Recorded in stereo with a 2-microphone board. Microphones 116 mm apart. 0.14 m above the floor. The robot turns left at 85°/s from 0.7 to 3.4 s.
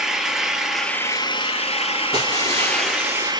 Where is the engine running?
175° right, 1.3 m; by 3.4 s 45° right, 1.3 m.